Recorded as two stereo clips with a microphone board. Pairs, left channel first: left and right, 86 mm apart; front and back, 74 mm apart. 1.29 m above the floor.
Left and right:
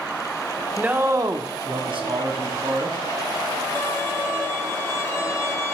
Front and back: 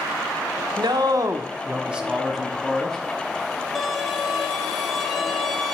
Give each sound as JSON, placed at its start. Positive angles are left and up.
{"t": 0.8, "sound": "a man speaking", "azimuth_deg": -165, "distance_m": 0.8}
{"t": 3.8, "sound": "a violin", "azimuth_deg": 90, "distance_m": 0.9}